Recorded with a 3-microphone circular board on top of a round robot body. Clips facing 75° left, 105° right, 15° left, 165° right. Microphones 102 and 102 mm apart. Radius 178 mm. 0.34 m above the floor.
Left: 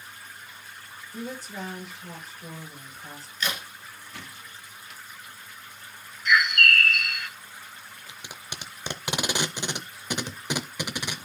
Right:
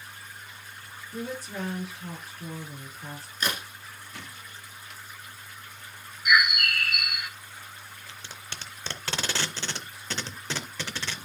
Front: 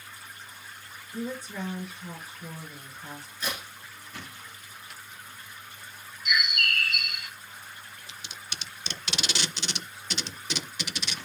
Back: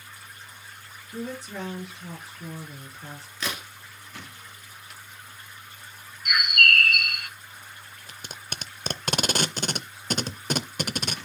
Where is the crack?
155° right, 2.5 m.